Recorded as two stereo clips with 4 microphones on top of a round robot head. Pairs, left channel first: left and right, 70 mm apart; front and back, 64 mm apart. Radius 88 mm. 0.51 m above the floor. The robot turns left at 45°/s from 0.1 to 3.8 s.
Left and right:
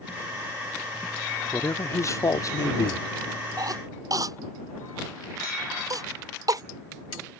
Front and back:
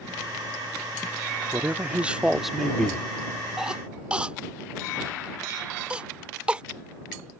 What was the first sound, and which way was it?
A man speaking, 135° left.